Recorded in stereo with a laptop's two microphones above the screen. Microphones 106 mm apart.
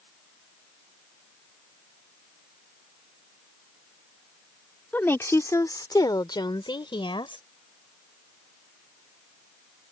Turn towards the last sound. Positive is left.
turn(degrees=55)  # may be behind; listen again after turning